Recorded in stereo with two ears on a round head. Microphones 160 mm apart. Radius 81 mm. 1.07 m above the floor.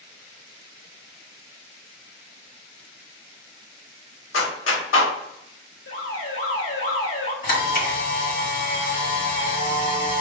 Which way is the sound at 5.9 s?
80° left.